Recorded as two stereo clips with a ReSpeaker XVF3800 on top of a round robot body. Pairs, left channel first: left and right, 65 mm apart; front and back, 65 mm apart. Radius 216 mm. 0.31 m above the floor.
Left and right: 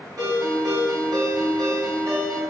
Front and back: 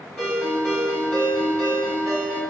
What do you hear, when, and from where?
0.2 s a ringtone: 70° right, 2.0 m